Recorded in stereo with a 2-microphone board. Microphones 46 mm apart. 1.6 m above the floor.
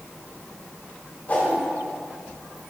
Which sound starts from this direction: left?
A whoosh, at 1.3 s.